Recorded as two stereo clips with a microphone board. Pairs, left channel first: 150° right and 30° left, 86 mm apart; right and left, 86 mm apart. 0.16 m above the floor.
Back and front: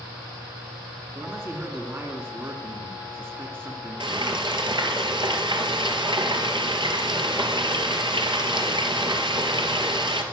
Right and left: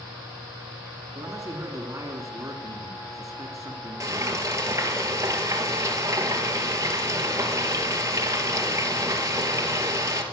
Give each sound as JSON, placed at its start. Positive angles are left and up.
{"t": 1.1, "sound": "a man speaking", "azimuth_deg": 75, "distance_m": 2.0}
{"t": 4.0, "sound": "frying", "azimuth_deg": 40, "distance_m": 2.5}